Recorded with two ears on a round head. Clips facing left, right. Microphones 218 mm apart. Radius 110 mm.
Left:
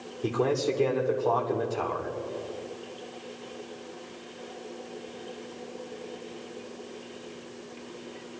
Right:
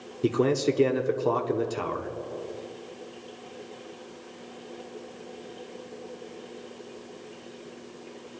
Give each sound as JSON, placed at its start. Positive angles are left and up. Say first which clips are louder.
{"t": 0.2, "sound": "a man speaking", "louder": "right 3 dB", "side_deg": -35, "distance_m": 1.5}